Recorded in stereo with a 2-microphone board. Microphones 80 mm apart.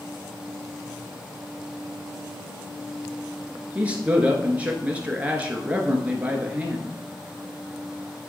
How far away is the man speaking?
About 1.3 m.